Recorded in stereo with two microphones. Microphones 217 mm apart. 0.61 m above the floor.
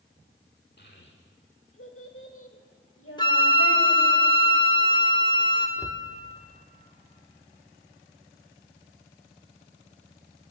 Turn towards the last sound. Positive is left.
turn(degrees=-15)  # may be behind; listen again after turning